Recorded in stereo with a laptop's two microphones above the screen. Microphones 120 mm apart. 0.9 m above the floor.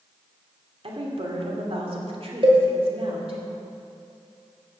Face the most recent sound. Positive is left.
turn(degrees=-45)  # may be behind; listen again after turning